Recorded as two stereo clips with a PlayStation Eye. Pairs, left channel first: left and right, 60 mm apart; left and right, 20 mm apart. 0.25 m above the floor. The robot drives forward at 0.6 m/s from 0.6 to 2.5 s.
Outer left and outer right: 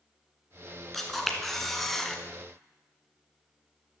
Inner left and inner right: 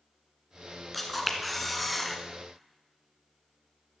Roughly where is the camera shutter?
Centre.